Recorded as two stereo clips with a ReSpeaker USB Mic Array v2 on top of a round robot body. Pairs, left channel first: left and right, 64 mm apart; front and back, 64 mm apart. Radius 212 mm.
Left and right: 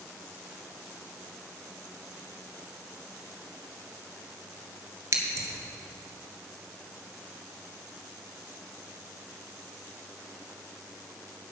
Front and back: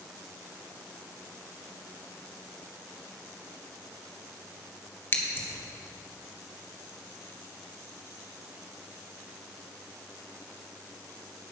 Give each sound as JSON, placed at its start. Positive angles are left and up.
{"t": 5.1, "sound": "scissors", "azimuth_deg": -50, "distance_m": 1.9}